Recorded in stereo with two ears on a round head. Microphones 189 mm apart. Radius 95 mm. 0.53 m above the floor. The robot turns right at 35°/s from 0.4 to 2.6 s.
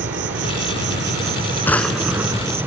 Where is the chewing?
I don't hear chewing.